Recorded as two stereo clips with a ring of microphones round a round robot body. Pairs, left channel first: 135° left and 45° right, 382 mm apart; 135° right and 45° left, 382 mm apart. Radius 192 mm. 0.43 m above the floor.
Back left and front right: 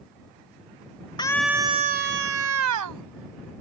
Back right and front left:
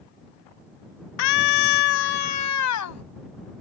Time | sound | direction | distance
1.2 | a scream | 150° right | ?